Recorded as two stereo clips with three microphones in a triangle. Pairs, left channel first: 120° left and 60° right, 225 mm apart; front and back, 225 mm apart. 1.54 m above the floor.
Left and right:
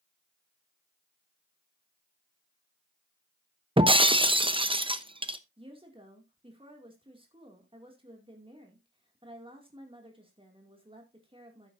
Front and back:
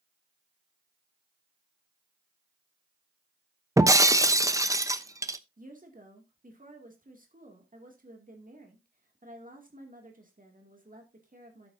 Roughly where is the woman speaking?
Behind right.